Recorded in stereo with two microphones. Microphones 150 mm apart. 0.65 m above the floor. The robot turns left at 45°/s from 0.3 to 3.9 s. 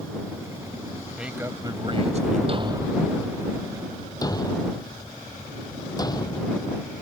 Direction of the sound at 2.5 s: 40° right (ahead or behind).